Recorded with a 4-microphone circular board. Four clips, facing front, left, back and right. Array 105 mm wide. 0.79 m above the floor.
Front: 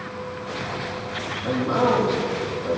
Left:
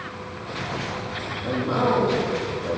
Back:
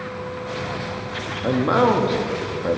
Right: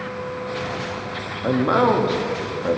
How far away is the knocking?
No knocking in this recording.